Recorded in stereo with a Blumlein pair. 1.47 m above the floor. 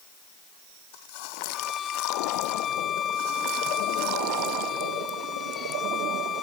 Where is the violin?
25° left.